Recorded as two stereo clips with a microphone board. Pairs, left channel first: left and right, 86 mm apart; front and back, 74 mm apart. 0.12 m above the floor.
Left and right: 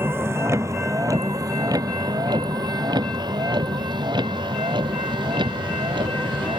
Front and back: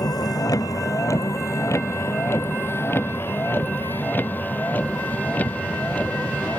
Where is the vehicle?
25° right; by 6.6 s 70° right.